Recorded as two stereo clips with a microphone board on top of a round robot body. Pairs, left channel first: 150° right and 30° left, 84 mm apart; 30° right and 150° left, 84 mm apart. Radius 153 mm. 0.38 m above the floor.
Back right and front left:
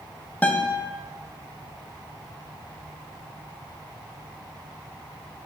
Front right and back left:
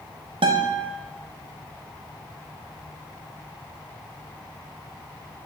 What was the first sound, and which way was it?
A guitar, 135° left.